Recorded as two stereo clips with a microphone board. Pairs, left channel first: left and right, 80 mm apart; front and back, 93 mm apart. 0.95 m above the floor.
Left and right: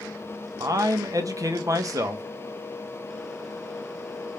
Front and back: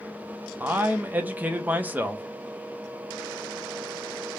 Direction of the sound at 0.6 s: 115° right.